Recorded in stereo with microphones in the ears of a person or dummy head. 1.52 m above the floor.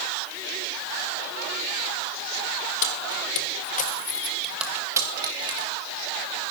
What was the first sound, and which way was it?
Keys jangling, 65° left (ahead or behind).